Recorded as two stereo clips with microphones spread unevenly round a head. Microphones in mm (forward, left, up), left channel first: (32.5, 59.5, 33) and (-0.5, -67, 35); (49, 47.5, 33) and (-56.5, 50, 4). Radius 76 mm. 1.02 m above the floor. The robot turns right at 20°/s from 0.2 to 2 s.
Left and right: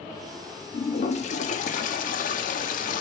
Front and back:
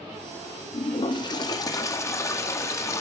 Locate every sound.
0.7 s a toilet flushing: 35° left, 1.8 m; by 3.0 s 60° left, 1.8 m